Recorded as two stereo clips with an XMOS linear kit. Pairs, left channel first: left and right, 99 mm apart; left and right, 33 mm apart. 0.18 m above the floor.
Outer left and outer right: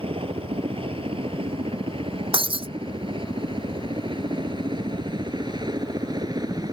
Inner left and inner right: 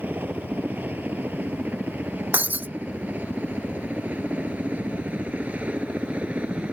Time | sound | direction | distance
0.0 | a helicopter | 70° right (ahead or behind) | ?
2.3 | breaking glass | 60° right (ahead or behind) | ?